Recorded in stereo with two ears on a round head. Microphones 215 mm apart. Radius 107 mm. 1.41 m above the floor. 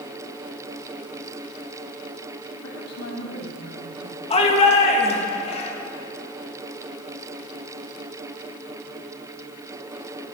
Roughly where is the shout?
Left.